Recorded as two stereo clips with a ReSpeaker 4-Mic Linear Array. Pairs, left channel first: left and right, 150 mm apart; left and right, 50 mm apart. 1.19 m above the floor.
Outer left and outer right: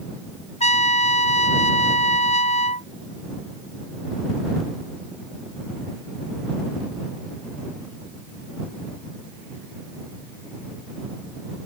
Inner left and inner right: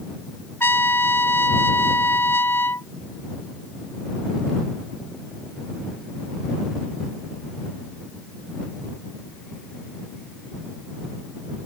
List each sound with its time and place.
0.6 s a trumpet: 45° left (ahead or behind)